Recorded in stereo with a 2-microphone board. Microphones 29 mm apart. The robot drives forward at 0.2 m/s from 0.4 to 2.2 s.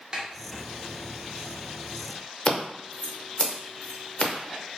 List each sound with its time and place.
0.1 s a snare drum: 30° right (ahead or behind), 0.6 m
2.5 s scissors: 45° left (ahead or behind), 0.5 m